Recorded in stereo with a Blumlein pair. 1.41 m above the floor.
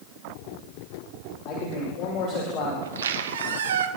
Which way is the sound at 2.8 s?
65° right.